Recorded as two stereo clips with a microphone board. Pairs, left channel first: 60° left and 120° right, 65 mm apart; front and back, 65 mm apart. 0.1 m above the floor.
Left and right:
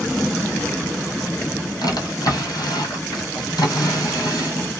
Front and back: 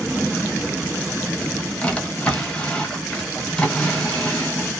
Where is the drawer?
75° left, 1.3 m.